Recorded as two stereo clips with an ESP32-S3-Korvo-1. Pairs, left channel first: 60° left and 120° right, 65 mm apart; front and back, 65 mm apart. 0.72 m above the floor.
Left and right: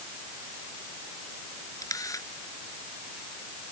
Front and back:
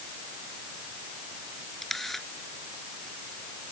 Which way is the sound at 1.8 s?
85° left.